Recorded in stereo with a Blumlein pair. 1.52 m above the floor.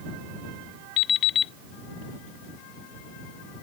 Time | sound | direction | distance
1.0 | an alarm clock | 30° left | ?